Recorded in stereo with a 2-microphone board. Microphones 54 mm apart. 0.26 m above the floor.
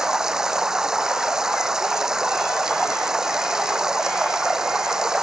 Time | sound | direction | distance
0.0 | running water | 10° right (ahead or behind) | ?